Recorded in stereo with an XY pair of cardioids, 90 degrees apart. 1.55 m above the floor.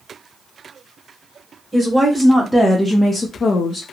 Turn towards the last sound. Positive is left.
turn(degrees=70)